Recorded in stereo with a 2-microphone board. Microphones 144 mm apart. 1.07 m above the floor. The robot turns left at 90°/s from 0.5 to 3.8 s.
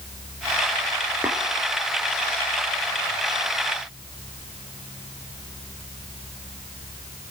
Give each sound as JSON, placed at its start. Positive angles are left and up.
{"t": 1.2, "sound": "tapping", "side_deg": -15, "distance_m": 2.5}